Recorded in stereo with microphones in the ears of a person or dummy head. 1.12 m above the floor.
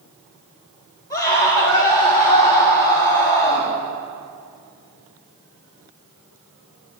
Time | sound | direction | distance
1.1 | a scream | 15° left (ahead or behind) | 6.5 m